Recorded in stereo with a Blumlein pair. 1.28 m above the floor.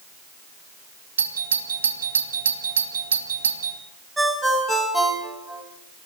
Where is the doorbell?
70° right, 2.0 m.